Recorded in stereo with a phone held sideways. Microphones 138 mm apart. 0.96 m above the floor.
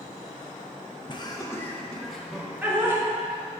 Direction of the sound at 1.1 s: 35° left (ahead or behind).